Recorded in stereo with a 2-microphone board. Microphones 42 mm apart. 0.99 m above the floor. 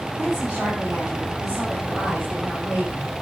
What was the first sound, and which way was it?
A woman speaking, 15° right (ahead or behind).